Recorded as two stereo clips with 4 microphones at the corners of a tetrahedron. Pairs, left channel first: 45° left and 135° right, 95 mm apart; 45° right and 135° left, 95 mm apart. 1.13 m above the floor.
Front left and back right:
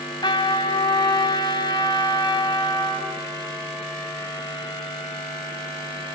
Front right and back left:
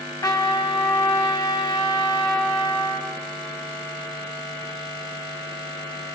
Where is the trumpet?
5° left, 5.5 m.